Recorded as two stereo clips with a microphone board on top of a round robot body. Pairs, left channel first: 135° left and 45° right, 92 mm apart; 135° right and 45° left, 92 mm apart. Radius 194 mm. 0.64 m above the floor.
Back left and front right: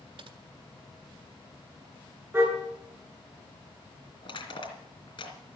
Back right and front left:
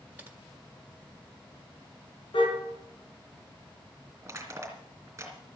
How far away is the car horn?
About 6.5 m.